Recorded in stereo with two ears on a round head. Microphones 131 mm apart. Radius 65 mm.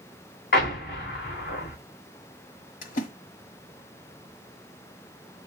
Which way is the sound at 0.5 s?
65° left (ahead or behind).